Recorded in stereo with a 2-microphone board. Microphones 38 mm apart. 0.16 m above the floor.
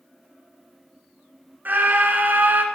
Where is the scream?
45° right (ahead or behind), 2 m.